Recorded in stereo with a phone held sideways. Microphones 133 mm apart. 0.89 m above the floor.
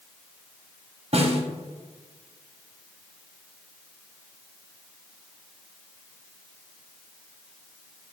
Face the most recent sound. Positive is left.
turn(degrees=-50)  # may be behind; listen again after turning